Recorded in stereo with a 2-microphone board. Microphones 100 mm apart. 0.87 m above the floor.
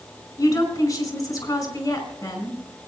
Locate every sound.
0.4 s a woman speaking: 35° left (ahead or behind), 4.5 m